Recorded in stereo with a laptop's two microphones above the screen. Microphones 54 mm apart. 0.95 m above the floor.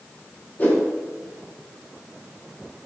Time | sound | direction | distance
0.6 | a whoosh | 35° left (ahead or behind) | 2.5 m